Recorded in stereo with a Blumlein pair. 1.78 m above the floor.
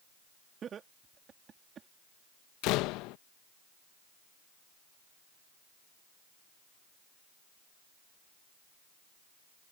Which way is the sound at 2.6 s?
40° left.